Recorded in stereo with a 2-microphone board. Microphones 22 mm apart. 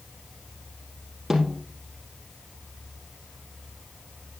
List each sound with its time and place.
1.3 s a snare drum: 15° right (ahead or behind), 3.5 m